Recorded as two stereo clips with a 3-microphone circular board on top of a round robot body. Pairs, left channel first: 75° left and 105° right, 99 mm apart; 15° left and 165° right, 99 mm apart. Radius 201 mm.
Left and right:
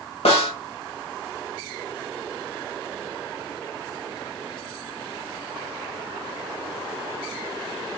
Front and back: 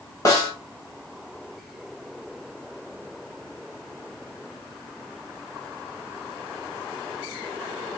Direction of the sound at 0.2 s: 70° left.